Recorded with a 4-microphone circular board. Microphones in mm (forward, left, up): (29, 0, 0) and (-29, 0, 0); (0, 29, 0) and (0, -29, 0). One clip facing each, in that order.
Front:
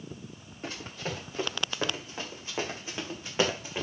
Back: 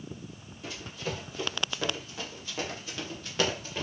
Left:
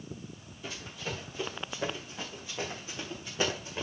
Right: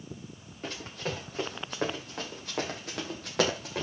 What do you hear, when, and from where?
0.6 s running footsteps: 50° right, 7 m; by 3.8 s 70° right, 4.5 m